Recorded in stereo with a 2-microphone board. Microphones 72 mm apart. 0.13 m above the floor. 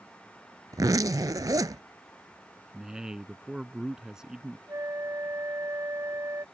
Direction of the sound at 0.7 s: 60° right (ahead or behind).